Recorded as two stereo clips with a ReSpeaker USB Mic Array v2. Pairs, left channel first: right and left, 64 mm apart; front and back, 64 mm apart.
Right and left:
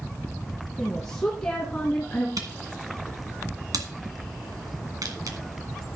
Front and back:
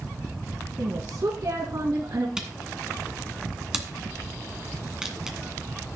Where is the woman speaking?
175° right, 2.5 m; by 2.3 s 160° right, 3 m.